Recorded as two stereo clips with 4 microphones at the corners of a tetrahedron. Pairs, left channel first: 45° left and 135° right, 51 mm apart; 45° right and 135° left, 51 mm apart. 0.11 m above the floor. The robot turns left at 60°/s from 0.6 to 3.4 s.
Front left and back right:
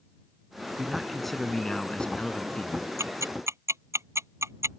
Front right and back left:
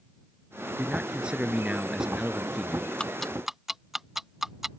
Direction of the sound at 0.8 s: 155° left.